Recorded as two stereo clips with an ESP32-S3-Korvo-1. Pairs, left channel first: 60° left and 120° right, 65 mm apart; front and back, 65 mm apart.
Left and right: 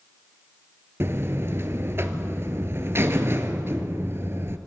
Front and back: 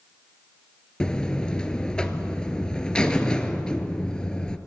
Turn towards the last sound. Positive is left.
turn(degrees=-75)